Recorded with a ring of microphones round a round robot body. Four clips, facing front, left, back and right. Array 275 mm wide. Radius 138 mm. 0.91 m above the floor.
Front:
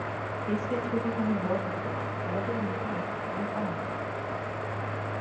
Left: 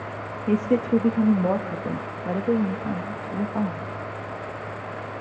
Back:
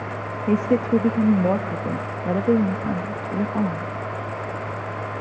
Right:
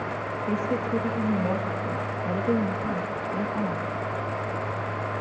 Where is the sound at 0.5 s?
155° left, 1.1 m.